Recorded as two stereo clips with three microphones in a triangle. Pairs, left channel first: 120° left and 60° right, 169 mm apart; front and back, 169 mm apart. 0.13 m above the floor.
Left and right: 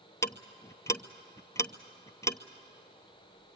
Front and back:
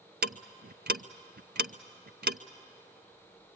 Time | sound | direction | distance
0.2 | ticking | 170° right | 0.6 m